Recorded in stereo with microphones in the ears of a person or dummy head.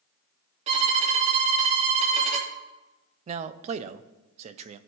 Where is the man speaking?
40° right (ahead or behind), 0.5 m.